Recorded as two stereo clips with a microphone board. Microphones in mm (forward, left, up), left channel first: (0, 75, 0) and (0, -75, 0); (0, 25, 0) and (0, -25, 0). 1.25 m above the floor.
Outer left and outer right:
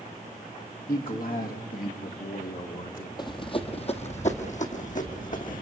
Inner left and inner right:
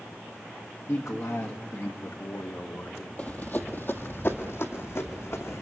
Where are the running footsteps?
30° left (ahead or behind), 1.4 m; by 5.6 s 65° left (ahead or behind), 3 m.